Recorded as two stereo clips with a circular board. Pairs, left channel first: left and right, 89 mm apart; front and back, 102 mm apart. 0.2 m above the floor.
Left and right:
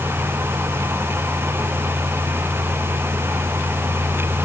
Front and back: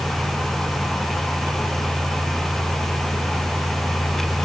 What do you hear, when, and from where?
Only background noise.